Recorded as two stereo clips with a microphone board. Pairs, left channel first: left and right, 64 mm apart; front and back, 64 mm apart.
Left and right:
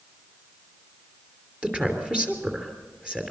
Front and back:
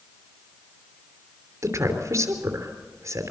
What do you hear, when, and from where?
1.6 s a woman speaking: 160° right, 3 m